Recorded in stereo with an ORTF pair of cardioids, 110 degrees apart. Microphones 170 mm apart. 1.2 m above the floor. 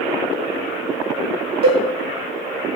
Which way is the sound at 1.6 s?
65° right.